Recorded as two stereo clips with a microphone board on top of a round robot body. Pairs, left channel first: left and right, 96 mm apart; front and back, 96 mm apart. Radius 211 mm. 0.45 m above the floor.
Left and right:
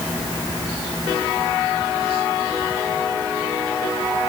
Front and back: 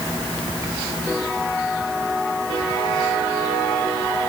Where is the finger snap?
I don't hear a finger snap.